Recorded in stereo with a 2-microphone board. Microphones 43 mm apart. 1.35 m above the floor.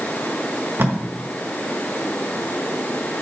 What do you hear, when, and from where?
0.8 s tape being pulled: 60° right (ahead or behind), 1.9 m